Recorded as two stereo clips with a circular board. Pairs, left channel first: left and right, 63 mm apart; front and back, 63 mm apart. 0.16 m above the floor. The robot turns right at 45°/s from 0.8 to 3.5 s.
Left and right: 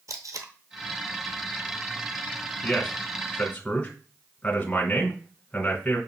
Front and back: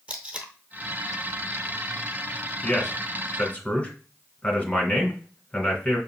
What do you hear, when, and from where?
0.1 s tape being pulled: 115° right, 0.8 m
2.6 s a man speaking: 10° left, 1.1 m; by 6.0 s 50° left, 1.1 m